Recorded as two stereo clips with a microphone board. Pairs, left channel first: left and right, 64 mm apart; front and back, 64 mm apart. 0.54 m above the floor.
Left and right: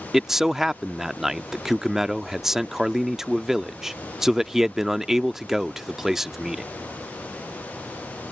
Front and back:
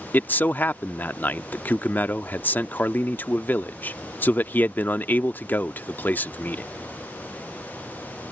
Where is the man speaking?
10° right.